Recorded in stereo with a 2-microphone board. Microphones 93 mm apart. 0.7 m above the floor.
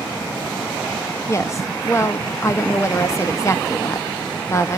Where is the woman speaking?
30° left (ahead or behind), 0.7 m.